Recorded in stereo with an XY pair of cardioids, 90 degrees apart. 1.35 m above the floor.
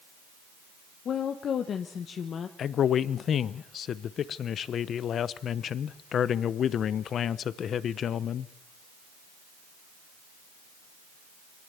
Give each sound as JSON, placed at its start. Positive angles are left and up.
{"t": 1.1, "sound": "a woman speaking", "azimuth_deg": 65, "distance_m": 1.1}
{"t": 2.6, "sound": "a man speaking", "azimuth_deg": 65, "distance_m": 0.8}